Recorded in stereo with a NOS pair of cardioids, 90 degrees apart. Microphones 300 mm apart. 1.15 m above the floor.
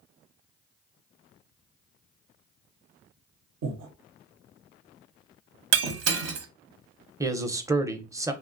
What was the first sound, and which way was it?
Breathing, 65° right.